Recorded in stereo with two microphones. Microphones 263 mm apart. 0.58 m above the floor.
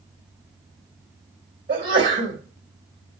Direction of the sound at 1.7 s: 50° right (ahead or behind).